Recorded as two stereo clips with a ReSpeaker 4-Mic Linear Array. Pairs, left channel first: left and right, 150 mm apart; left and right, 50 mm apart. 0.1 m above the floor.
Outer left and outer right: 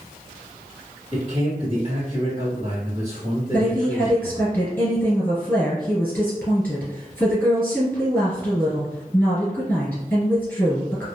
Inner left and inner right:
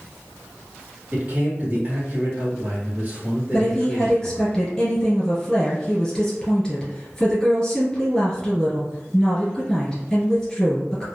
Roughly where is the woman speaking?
Centre.